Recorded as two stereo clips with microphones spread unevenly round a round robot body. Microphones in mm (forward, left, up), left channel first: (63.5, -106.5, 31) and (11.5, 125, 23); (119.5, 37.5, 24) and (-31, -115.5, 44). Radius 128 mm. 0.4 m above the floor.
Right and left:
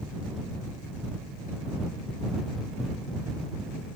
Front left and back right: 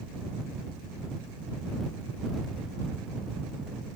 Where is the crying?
I don't hear crying.